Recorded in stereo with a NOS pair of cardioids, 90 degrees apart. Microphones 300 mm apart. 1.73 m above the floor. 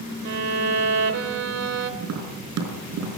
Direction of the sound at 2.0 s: 70° right.